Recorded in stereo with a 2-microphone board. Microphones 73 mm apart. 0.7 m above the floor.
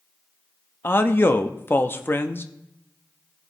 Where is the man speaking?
30° left (ahead or behind), 0.6 m.